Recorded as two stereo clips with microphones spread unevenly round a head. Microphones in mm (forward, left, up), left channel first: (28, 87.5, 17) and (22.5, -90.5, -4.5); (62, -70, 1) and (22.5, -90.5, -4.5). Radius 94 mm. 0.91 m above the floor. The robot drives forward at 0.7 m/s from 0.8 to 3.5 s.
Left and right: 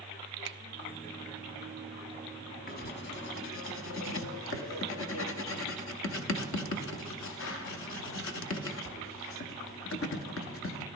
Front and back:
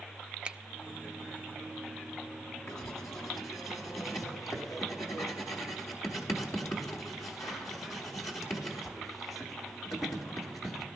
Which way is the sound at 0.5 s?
90° right.